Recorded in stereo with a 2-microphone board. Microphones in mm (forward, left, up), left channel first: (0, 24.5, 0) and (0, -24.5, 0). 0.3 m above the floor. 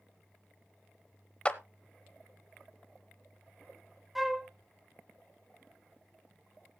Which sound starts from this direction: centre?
A flute, at 4.2 s.